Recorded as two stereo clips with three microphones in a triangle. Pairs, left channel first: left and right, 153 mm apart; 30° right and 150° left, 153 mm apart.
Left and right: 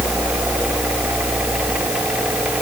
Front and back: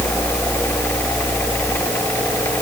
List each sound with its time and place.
Only background noise.